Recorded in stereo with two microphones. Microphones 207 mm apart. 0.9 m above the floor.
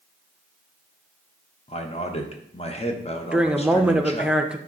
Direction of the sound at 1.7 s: 30° left (ahead or behind).